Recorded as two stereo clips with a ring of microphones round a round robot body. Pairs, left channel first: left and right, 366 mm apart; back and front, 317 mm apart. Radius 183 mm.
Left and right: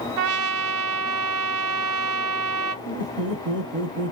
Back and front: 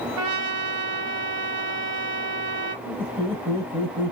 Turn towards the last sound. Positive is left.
turn(degrees=-100)